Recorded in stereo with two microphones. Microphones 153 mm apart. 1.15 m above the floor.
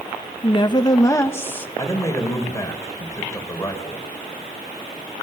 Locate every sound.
0.4 s a woman speaking: 35° left (ahead or behind), 1.6 m; by 1.7 s 10° left (ahead or behind), 1.6 m
1.8 s a man speaking: 20° left (ahead or behind), 4.5 m